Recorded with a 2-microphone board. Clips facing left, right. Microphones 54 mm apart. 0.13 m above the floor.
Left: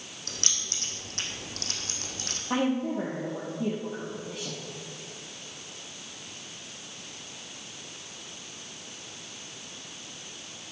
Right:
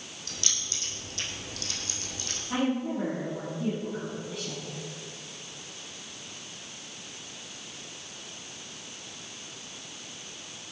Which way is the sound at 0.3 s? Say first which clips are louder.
Even; 45° left (ahead or behind).